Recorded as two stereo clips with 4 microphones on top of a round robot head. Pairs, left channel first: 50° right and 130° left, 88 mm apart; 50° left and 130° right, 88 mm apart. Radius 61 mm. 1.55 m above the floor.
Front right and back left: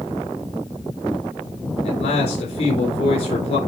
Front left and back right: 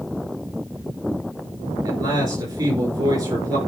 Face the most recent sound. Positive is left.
turn(degrees=-75)